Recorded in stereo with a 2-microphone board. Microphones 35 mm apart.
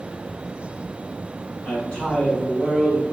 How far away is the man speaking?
About 1.7 m.